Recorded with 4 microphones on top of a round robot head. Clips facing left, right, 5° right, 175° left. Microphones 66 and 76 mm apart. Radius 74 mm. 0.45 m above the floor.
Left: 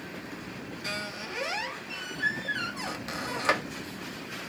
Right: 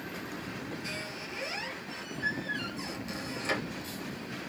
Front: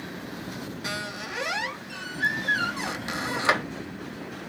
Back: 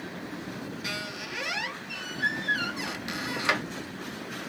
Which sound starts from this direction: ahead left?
A squeak, at 0.8 s.